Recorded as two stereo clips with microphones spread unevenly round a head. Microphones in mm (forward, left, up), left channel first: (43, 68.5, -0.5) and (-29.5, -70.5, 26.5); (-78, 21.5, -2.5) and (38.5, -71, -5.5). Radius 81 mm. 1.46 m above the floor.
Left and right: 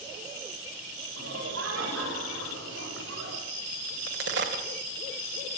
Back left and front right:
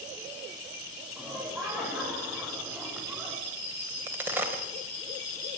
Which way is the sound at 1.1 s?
130° right.